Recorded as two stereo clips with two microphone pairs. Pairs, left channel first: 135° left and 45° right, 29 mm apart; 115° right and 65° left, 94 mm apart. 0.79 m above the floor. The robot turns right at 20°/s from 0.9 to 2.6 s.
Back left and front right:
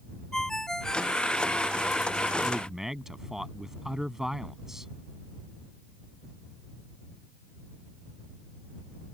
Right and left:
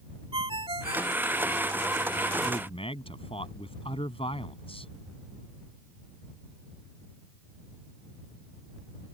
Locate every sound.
0.3 s a ringtone: 65° left; by 1.2 s 70° left
2.4 s a man speaking: 125° right; by 4.9 s 120° right